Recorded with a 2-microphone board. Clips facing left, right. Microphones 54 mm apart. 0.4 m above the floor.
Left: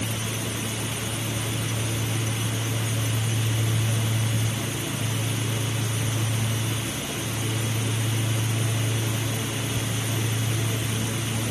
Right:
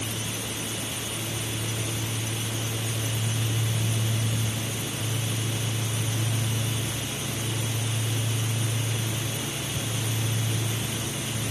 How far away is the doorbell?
I don't hear a doorbell.